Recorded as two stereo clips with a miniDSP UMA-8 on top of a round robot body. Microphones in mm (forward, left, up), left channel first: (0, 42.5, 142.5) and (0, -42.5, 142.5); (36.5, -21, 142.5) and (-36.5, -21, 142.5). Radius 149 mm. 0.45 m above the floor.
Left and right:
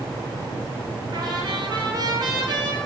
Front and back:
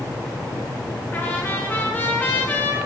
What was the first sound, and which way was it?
A trumpet, 65° right.